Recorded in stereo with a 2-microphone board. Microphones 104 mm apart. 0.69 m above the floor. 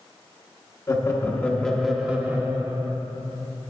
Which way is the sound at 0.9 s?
35° left (ahead or behind).